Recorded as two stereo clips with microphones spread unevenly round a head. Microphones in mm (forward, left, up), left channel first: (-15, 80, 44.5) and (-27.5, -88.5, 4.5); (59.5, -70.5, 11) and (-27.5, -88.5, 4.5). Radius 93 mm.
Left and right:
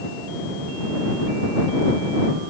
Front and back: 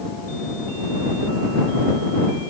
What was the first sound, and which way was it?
Only background noise.